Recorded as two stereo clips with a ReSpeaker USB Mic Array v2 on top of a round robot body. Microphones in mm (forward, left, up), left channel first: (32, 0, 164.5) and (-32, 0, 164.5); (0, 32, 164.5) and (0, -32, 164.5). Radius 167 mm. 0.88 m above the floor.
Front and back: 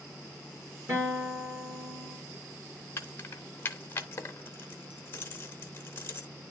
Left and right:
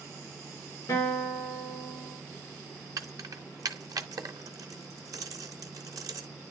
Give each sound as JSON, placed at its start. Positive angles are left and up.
{"t": 0.9, "sound": "a guitar", "azimuth_deg": 135, "distance_m": 3.5}
{"t": 3.0, "sound": "keys jangling", "azimuth_deg": -55, "distance_m": 0.6}